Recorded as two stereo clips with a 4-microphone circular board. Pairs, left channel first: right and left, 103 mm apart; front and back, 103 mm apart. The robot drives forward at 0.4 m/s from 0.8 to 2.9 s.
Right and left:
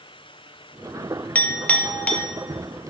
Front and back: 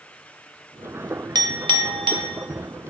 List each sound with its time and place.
1.4 s a clink: 160° right, 0.7 m; by 2.3 s 170° right, 1.0 m